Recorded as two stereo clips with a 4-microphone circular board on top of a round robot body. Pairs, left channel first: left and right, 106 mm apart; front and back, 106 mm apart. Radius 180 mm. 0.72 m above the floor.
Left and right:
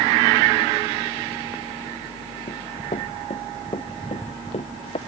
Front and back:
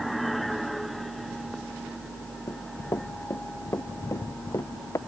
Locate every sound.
2.5 s running footsteps: 65° left